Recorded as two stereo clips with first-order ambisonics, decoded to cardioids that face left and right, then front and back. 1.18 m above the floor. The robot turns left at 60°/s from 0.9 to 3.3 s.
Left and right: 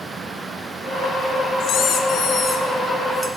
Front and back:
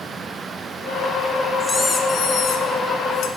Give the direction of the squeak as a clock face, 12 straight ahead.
9 o'clock.